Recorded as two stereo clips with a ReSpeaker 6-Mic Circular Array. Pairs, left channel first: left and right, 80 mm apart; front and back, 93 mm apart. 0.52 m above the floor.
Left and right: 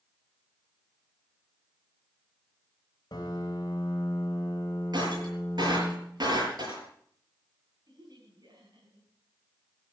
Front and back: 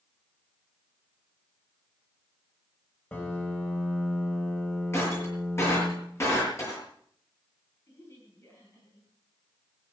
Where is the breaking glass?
60° right, 7 m.